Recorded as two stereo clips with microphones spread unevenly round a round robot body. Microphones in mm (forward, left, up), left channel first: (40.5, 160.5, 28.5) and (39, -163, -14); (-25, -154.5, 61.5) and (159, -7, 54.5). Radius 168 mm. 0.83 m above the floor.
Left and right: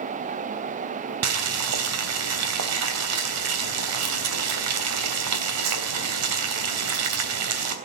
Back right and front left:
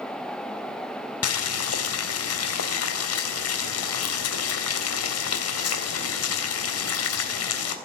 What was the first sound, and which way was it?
Boiling, 135° right.